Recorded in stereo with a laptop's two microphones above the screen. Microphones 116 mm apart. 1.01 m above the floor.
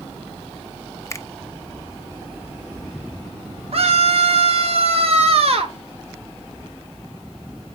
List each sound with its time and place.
1.1 s a finger snap: 25° left (ahead or behind), 0.6 m
3.7 s a scream: 60° right (ahead or behind), 1.1 m